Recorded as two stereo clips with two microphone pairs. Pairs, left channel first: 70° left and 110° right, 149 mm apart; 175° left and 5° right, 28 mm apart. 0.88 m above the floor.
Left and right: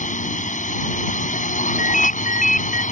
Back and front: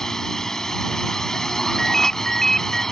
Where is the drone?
100° left.